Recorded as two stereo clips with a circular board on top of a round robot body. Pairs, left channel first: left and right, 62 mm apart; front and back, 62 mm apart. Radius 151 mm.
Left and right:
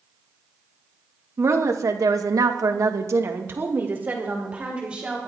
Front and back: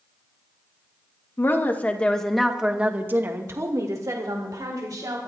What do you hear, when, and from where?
1.4 s a woman speaking: 50° right, 1.8 m; by 5.3 s 165° right, 3 m